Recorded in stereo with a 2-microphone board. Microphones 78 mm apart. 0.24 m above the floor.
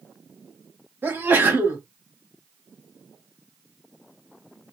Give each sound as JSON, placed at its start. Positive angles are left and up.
{"t": 1.0, "sound": "a sneeze", "side_deg": -25, "distance_m": 1.4}